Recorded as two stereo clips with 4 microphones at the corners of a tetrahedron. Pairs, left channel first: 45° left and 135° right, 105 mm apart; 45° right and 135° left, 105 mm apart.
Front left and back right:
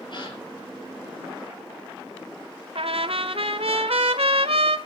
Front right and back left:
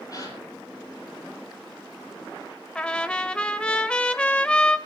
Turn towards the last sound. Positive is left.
turn(degrees=-125)